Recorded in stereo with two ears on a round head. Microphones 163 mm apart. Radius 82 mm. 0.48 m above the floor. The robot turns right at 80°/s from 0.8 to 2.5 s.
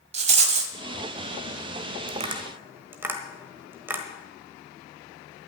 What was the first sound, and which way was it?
A rattle, 35° right (ahead or behind).